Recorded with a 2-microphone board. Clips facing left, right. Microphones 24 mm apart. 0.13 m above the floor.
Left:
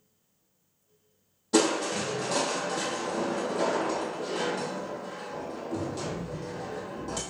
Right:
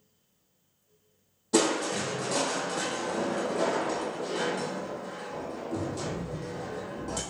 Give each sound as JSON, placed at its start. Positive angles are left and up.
{"t": 1.5, "sound": "crushing", "side_deg": 10, "distance_m": 1.6}